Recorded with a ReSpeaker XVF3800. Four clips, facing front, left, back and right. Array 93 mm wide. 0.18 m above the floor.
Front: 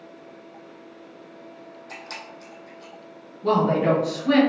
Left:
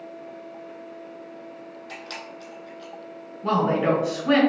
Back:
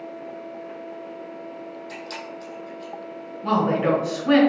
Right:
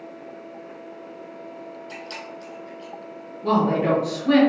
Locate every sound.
1.9 s a camera shutter: 70° left, 1.7 m
3.4 s a woman speaking: 130° left, 1.2 m